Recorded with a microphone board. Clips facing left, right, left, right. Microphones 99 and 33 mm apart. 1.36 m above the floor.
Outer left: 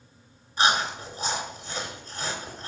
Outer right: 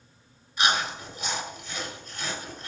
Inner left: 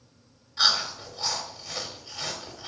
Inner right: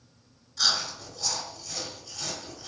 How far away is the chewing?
About 3 m.